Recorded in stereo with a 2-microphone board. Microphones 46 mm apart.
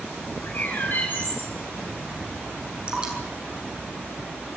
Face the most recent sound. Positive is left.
turn(degrees=-25)  # may be behind; listen again after turning